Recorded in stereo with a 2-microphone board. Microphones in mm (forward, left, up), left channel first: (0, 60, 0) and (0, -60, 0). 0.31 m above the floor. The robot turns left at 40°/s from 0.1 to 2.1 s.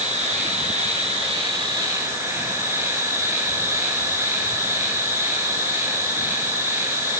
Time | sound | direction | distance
0.0 | an insect | 75° right | 8.5 m